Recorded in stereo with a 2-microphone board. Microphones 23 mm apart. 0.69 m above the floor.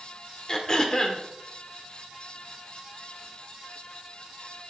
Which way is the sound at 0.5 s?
25° left (ahead or behind).